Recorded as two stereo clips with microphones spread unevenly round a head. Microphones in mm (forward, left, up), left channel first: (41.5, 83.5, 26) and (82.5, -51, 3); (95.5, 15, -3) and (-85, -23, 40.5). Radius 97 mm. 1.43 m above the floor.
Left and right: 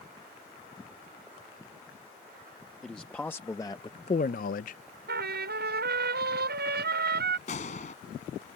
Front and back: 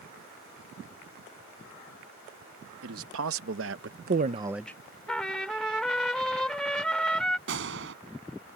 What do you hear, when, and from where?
2.8 s a man speaking: 170° right; by 4.8 s 95° left
5.1 s a trumpet: 75° right
7.5 s a gunshot: 165° left